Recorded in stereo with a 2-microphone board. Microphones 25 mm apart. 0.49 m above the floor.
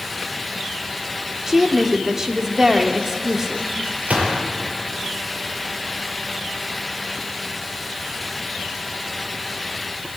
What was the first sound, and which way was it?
A woman speaking, 20° right (ahead or behind).